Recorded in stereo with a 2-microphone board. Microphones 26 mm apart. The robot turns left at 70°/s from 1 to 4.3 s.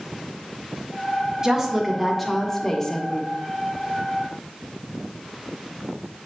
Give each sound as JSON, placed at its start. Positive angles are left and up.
{"t": 1.4, "sound": "a woman speaking", "side_deg": -20, "distance_m": 0.6}